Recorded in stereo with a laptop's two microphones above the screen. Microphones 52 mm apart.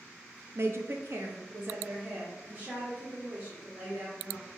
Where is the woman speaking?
55° right (ahead or behind), 0.5 m; by 4.5 s 25° right (ahead or behind), 2 m.